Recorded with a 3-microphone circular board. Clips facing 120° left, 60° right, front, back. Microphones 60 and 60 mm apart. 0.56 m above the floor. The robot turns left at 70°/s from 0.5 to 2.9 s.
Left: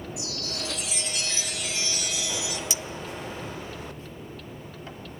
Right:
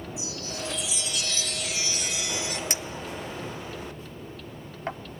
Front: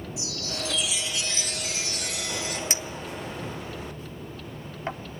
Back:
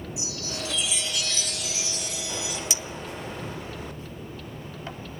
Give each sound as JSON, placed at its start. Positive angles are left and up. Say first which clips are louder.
{"t": 0.2, "sound": "a chime", "louder": "even, front 1 dB", "azimuth_deg": 110, "distance_m": 2.5}
{"t": 2.7, "sound": "a clink", "louder": "right 1 dB, front 1 dB", "azimuth_deg": -35, "distance_m": 0.6}